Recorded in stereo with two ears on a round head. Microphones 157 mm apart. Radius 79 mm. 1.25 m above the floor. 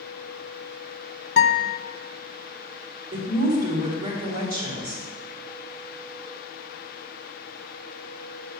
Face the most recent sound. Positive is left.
turn(degrees=-55)  # may be behind; listen again after turning